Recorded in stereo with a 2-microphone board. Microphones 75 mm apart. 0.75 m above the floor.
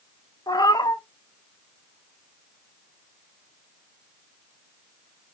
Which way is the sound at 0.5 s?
60° left (ahead or behind).